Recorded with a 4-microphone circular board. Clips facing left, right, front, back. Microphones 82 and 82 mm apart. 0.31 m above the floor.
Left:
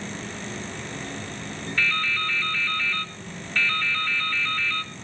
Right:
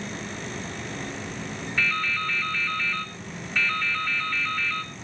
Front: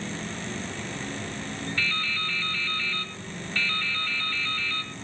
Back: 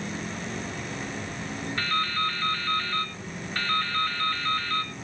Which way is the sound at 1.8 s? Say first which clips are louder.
Left 1 dB, back 6 dB; 165° right.